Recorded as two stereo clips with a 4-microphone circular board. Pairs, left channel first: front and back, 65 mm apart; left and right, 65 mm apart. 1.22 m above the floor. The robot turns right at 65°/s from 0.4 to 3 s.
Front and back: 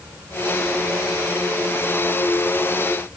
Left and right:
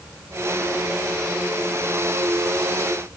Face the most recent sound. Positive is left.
No sound to turn to.